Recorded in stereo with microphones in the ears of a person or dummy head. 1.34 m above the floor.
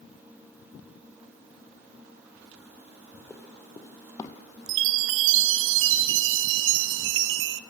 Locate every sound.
3.3 s running footsteps: 10° left (ahead or behind), 1.8 m; by 4.3 s 20° left (ahead or behind), 2.5 m
4.7 s a chime: 70° right (ahead or behind), 0.7 m